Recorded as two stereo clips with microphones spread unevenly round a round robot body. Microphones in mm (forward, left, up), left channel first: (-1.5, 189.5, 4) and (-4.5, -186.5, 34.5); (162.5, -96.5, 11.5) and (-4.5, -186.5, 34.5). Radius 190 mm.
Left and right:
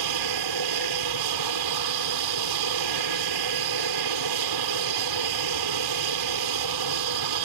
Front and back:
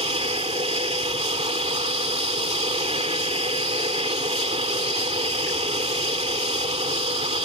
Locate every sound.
0.0 s an aircraft: 100° right